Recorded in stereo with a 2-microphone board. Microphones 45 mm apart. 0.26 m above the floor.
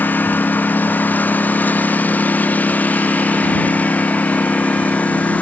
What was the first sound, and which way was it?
A lawn mower, 45° left (ahead or behind).